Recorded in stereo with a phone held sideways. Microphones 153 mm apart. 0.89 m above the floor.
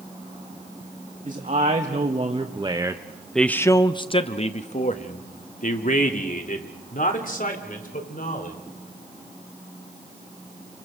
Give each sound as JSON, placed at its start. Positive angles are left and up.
{"t": 1.2, "sound": "a man speaking", "side_deg": -55, "distance_m": 1.9}